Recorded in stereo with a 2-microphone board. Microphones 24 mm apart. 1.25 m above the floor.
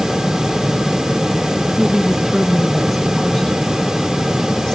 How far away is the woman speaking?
About 1.5 m.